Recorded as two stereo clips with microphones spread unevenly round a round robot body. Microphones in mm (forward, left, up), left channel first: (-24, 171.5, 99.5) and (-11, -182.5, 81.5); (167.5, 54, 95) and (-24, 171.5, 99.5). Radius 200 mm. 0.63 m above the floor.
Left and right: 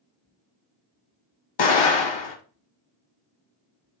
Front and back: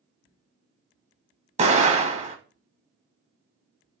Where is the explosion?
90° left, 1.1 m.